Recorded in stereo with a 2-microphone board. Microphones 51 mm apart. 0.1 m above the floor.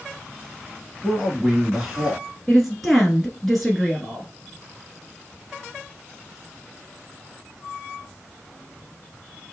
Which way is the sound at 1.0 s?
10° right (ahead or behind).